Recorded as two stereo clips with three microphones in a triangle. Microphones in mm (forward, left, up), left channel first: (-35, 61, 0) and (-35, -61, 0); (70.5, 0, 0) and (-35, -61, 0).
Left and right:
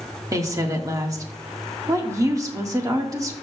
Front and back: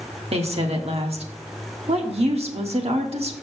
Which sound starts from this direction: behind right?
A woman speaking, at 0.3 s.